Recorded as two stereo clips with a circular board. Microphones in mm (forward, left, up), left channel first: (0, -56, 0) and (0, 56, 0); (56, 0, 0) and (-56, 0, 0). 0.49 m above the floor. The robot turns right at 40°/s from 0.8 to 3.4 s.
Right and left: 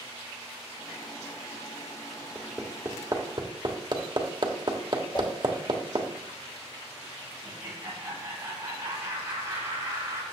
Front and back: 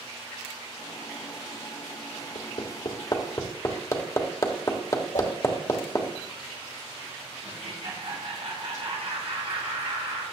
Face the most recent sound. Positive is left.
turn(degrees=155)